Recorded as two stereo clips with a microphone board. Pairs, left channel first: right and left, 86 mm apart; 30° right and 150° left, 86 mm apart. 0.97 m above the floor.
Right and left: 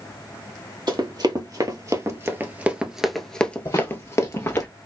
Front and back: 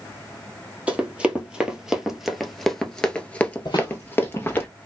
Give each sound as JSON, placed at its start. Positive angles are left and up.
{"t": 0.9, "sound": "running footsteps", "azimuth_deg": 75, "distance_m": 1.6}
{"t": 3.6, "sound": "footsteps", "azimuth_deg": -50, "distance_m": 1.7}